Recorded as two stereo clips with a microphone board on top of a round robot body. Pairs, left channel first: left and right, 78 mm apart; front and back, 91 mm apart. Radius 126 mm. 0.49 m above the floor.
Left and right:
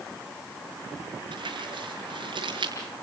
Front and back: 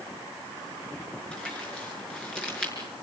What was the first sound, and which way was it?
Crumpling, 80° right.